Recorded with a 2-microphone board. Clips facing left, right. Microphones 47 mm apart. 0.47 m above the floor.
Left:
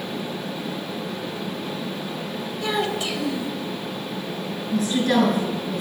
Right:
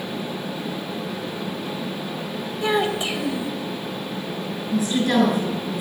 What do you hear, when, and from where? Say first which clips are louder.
2.6 s a child speaking: right 3 dB; 15° right (ahead or behind), 1.5 m
4.7 s a woman speaking: even; centre (ahead or behind), 7 m